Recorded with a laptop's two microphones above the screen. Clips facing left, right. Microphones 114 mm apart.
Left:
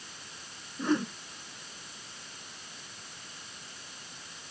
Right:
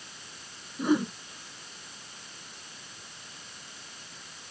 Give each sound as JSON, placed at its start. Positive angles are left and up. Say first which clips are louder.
{"t": 0.8, "sound": "a whoosh", "louder": "right 3 dB", "side_deg": -10}